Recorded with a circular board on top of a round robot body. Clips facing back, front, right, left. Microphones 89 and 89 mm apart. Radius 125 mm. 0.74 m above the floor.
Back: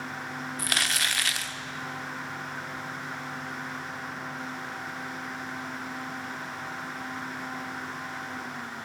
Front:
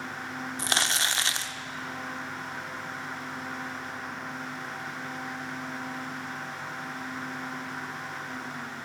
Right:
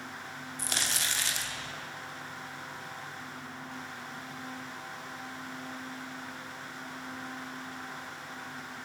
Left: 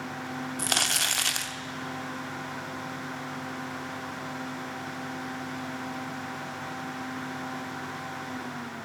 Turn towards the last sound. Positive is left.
turn(degrees=65)